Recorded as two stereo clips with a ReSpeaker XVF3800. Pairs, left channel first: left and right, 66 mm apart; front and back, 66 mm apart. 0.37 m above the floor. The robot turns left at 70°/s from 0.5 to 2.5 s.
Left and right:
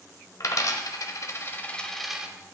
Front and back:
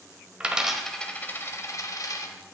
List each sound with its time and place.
0.4 s a dropped coin: 110° left, 0.8 m; by 2.3 s 20° right, 0.8 m